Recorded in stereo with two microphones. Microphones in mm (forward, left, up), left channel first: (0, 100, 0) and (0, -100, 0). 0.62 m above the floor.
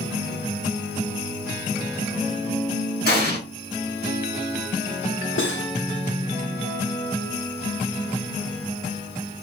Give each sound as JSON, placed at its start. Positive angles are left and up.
{"t": 3.0, "sound": "an explosion", "side_deg": 55, "distance_m": 1.7}
{"t": 5.4, "sound": "cutlery clinking", "side_deg": 70, "distance_m": 0.8}